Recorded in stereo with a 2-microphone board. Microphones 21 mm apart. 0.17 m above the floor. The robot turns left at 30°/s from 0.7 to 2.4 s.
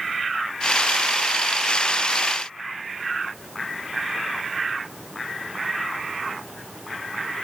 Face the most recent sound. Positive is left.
No sound to turn to.